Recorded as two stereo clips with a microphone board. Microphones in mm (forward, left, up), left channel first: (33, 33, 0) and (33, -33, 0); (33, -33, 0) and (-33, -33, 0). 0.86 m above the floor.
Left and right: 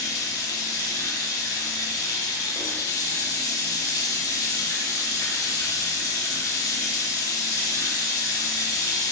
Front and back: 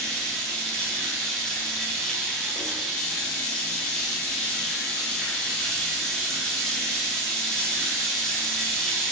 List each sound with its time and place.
0.0 s running water: 80° left, 0.7 m